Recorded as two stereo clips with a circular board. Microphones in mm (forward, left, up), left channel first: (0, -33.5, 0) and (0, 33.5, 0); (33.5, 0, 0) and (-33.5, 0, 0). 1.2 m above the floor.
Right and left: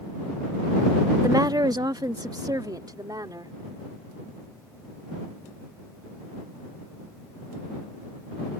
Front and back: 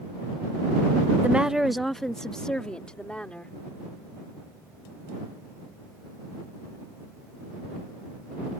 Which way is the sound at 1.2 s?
115° left.